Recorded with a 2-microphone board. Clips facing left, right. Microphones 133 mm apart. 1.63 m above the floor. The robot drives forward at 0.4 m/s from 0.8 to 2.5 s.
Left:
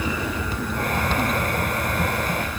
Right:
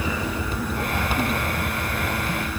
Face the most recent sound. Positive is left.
No sound to turn to.